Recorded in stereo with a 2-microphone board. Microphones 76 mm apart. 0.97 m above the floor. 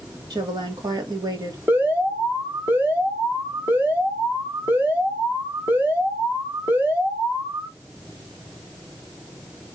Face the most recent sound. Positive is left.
turn(degrees=-25)  # may be behind; listen again after turning